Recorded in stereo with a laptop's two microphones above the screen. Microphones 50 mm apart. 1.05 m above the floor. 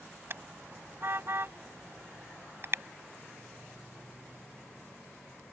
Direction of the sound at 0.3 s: 50° right (ahead or behind).